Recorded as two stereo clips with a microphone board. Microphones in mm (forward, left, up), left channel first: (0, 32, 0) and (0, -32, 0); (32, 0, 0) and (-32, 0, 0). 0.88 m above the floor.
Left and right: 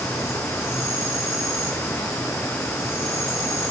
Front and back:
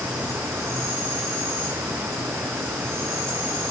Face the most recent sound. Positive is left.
turn(degrees=130)